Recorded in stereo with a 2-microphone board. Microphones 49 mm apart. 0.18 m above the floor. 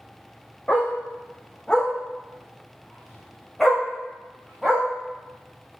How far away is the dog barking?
About 2.5 m.